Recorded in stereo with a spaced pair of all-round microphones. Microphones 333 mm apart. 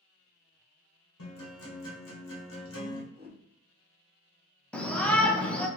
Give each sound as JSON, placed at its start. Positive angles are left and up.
{"t": 1.2, "sound": "a guitar", "side_deg": 70, "distance_m": 1.1}
{"t": 3.1, "sound": "a whoosh", "side_deg": -30, "distance_m": 1.2}
{"t": 4.7, "sound": "a shout", "side_deg": 5, "distance_m": 0.7}